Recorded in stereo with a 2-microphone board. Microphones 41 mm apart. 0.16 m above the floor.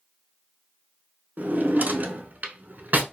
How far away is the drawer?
About 0.5 m.